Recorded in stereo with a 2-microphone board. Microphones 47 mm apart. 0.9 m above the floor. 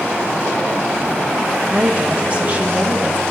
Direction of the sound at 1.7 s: 30° right (ahead or behind).